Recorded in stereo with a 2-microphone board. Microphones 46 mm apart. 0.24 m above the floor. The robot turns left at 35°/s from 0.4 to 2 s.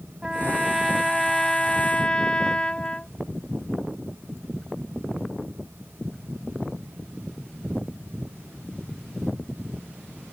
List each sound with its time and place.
0.2 s a trumpet: 160° right; by 3.1 s 145° left